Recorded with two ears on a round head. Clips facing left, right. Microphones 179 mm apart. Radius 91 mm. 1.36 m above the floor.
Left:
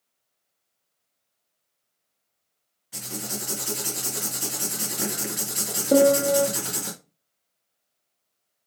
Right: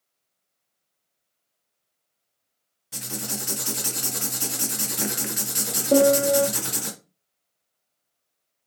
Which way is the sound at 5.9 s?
5° left (ahead or behind).